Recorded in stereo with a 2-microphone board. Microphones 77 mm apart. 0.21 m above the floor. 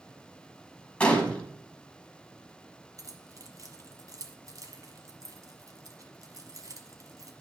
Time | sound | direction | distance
1.0 | a gunshot | 15° left (ahead or behind) | 1.1 m
3.0 | keys jangling | 45° right (ahead or behind) | 1.2 m